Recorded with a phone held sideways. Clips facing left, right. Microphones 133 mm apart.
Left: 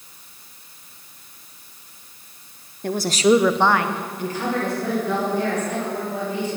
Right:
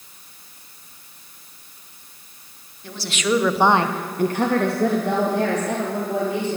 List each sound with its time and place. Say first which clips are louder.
2.8 s a woman speaking: left 7 dB; 55° left (ahead or behind), 1.3 m; by 6.6 s 75° right (ahead or behind), 5 m